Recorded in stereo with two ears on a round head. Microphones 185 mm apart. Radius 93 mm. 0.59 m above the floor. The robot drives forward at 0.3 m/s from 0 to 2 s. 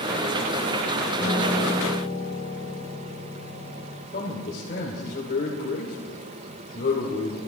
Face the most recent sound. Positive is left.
turn(degrees=45)  # may be behind; listen again after turning